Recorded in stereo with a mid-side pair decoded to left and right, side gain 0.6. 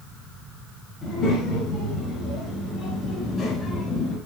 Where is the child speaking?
40° left, 7 m; by 4.2 s 35° left, 5.5 m.